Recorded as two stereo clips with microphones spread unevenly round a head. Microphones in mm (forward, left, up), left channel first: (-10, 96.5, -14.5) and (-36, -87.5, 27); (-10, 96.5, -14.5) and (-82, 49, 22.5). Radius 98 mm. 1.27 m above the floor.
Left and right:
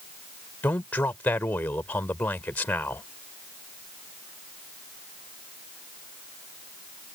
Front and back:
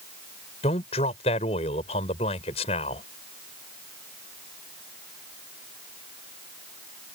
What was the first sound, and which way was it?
A man speaking, straight ahead.